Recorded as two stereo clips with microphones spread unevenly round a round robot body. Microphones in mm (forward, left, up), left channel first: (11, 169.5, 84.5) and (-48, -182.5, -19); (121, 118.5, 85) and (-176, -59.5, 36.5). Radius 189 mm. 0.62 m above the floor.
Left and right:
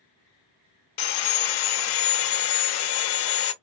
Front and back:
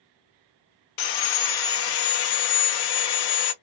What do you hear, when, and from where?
1.0 s sawing: 55° left, 0.8 m